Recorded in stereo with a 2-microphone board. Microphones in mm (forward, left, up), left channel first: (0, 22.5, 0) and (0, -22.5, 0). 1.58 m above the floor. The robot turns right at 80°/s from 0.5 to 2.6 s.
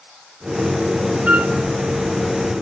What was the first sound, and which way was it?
A flute, 25° right (ahead or behind).